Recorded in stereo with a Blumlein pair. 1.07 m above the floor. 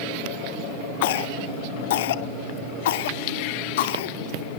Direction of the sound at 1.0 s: 55° left.